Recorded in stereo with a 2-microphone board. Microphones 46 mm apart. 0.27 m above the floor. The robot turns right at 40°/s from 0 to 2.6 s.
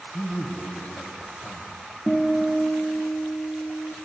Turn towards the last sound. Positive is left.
turn(degrees=-25)  # may be behind; listen again after turning